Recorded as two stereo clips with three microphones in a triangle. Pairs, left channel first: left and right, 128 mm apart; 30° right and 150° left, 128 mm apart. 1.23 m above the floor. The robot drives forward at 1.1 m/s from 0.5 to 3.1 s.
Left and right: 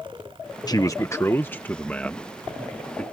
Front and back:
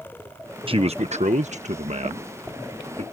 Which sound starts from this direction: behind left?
A man speaking, at 0.7 s.